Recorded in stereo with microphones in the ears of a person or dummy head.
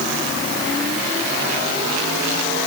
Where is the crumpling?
I don't hear crumpling.